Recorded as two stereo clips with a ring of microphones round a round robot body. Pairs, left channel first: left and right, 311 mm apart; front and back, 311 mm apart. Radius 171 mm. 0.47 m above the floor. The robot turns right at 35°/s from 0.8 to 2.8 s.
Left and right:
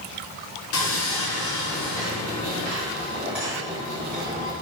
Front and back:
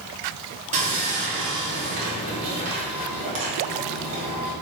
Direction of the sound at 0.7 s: 115° left.